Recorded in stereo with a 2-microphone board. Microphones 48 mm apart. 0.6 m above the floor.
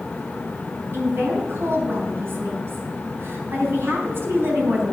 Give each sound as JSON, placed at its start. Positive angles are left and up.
{"t": 0.9, "sound": "a woman speaking", "side_deg": -60, "distance_m": 4.0}